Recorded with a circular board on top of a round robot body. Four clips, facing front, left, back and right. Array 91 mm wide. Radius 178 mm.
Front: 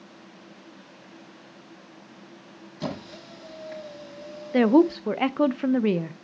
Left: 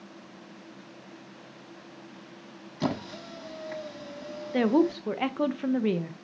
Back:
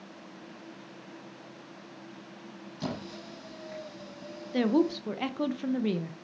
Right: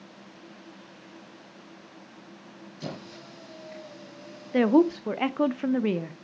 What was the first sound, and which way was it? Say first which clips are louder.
A squeak: left 8 dB, front 3 dB; 75° left.